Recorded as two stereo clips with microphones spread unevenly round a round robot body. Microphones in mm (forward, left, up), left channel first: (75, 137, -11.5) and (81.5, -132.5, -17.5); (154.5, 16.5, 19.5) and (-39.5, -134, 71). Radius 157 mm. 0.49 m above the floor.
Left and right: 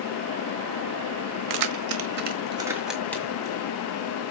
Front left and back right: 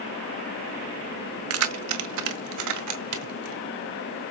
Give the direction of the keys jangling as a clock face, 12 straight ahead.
4 o'clock.